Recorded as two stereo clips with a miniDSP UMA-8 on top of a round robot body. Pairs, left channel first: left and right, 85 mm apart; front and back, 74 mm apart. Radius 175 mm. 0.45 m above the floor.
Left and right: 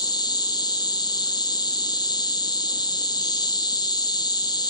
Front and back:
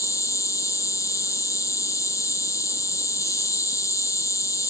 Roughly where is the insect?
Ahead left.